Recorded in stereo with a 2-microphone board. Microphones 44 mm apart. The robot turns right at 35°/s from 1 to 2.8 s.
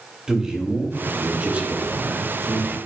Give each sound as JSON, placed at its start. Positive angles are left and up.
{"t": 0.3, "sound": "a man speaking", "azimuth_deg": -160, "distance_m": 2.0}